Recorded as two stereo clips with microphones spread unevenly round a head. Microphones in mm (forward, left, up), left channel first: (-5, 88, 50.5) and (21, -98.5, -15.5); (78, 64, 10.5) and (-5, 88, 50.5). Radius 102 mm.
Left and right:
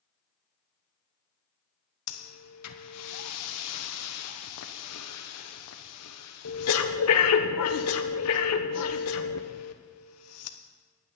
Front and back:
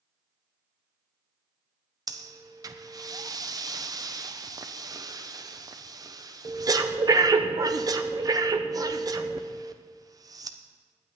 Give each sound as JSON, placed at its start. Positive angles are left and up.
{"t": 2.1, "sound": "breathing", "azimuth_deg": 105, "distance_m": 1.1}